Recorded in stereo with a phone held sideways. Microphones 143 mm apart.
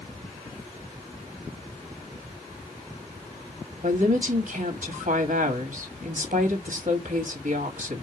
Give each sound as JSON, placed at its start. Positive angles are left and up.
{"t": 3.8, "sound": "a woman speaking", "side_deg": -65, "distance_m": 1.8}